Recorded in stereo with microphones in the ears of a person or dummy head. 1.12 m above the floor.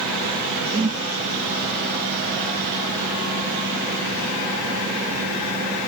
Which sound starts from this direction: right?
A whoosh, at 0.7 s.